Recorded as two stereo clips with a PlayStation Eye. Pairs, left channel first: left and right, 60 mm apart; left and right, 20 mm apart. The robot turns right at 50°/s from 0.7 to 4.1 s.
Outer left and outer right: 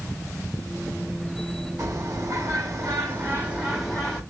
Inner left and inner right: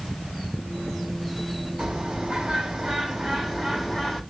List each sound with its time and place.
1.8 s a bird: 105° right, 1.7 m; by 4.2 s 10° left, 1.7 m